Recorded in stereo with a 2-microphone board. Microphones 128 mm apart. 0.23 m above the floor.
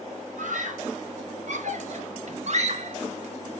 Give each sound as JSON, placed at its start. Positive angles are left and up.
{"t": 0.4, "sound": "a scream", "side_deg": -70, "distance_m": 5.5}